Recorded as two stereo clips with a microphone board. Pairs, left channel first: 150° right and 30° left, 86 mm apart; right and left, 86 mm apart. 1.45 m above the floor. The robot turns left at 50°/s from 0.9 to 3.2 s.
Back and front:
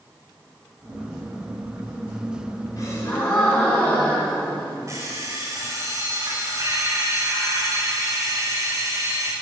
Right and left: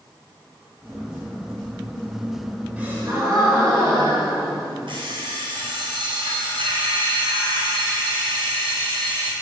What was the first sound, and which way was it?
A gasp, 165° left.